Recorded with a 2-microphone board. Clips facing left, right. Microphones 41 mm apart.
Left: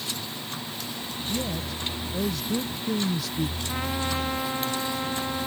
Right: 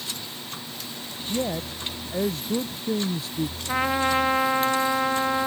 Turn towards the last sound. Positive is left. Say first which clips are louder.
# right 6 dB
turn(degrees=-40)  # may be behind; listen again after turning